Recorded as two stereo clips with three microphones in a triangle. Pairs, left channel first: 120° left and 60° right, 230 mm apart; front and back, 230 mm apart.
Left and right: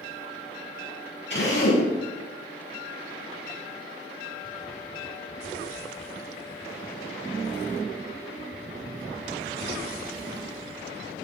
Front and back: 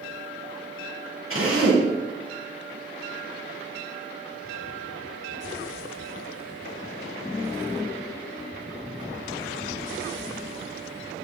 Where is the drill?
160° left, 8.5 m.